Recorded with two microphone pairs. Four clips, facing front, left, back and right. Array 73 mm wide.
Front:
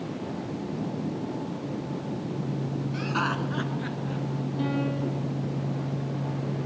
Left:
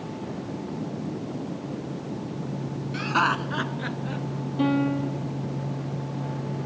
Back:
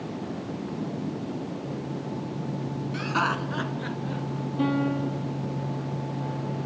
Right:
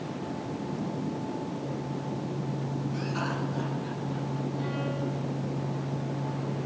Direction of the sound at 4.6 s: 115° left.